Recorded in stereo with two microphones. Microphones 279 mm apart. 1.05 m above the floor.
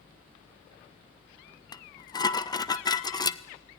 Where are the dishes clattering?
15° left (ahead or behind), 0.5 m.